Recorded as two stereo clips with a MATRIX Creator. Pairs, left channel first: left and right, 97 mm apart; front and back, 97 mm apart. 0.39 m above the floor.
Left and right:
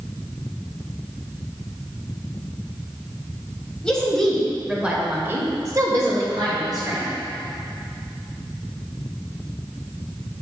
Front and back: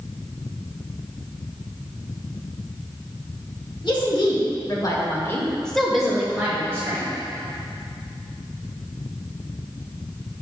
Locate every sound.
3.8 s a woman speaking: 10° left, 1.8 m; by 7.1 s 125° right, 1.8 m